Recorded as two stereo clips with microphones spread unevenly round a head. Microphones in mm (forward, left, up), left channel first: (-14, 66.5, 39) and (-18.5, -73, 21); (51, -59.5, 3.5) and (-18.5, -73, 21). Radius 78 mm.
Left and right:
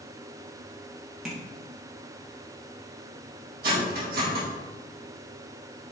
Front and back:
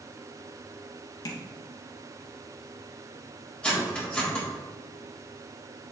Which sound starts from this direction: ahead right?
Cutlery clinking, at 3.6 s.